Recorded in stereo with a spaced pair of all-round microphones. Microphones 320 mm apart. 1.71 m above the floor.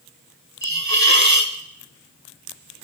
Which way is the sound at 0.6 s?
60° right (ahead or behind).